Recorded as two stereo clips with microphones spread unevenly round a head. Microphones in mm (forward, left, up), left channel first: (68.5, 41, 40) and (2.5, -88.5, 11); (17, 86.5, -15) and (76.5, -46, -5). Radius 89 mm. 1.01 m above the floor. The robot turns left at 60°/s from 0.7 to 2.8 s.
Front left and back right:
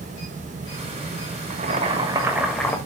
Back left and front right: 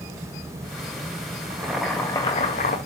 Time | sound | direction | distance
1.5 | boiling | 140° right | 1.7 m